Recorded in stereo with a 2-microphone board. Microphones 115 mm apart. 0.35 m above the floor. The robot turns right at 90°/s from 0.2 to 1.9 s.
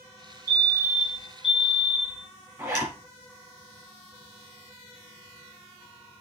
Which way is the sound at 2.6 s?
25° right (ahead or behind).